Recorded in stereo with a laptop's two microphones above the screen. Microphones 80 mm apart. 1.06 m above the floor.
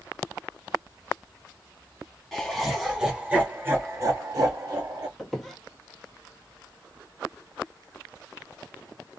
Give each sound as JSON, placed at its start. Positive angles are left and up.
{"t": 2.3, "sound": "laughter", "side_deg": 0, "distance_m": 1.3}
{"t": 5.2, "sound": "a squeak", "side_deg": 0, "distance_m": 1.1}